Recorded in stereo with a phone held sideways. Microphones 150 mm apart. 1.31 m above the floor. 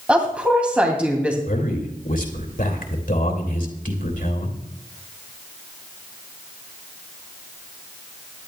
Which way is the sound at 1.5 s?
70° left (ahead or behind).